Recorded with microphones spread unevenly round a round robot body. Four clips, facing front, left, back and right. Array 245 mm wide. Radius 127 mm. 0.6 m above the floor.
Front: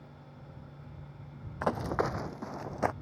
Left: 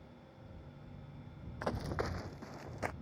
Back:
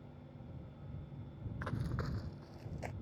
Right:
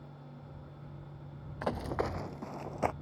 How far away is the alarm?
No alarm in this recording.